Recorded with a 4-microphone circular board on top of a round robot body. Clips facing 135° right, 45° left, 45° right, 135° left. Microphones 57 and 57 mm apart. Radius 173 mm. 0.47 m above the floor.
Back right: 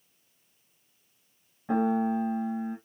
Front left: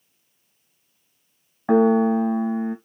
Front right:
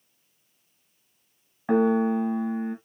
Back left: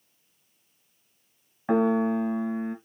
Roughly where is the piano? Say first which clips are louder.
Front left 9 dB, front right 1 dB; ahead left.